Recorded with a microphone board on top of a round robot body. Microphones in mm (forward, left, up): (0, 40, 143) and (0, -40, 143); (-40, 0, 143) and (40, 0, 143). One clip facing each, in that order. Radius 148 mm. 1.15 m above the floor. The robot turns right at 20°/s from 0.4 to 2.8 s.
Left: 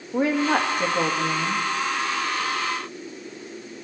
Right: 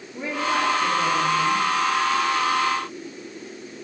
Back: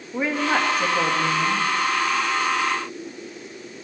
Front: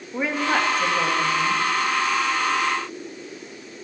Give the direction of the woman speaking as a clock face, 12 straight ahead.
9 o'clock.